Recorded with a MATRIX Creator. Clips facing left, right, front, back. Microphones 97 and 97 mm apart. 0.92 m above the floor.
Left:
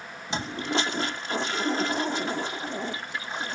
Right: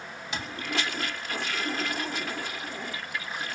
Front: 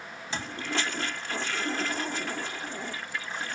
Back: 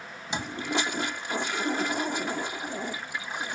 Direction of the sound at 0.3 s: 120° left.